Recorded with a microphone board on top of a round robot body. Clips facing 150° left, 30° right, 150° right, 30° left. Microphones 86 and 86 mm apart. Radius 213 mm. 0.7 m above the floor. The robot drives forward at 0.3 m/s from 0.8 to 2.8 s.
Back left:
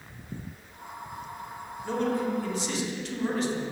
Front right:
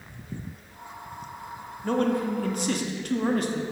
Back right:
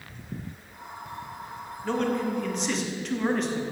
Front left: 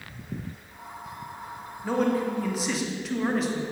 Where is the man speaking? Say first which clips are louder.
Front right 3 dB, front left 2 dB; 50° right, 2.5 m; by 3.6 s 55° right, 2 m.